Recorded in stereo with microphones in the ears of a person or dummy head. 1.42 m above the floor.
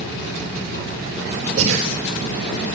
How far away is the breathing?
About 3.5 m.